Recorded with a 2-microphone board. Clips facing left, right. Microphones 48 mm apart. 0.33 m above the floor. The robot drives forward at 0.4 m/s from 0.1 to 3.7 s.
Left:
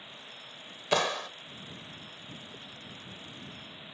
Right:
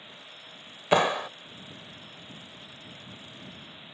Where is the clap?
20° right (ahead or behind).